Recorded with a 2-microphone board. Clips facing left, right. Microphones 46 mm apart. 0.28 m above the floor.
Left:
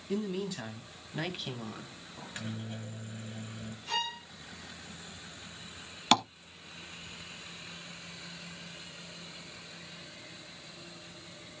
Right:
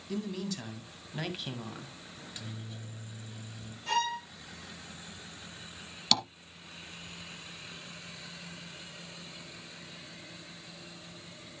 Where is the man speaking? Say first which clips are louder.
Left 2 dB; 20° left (ahead or behind), 2.5 m; by 2.0 s 10° right (ahead or behind), 2 m.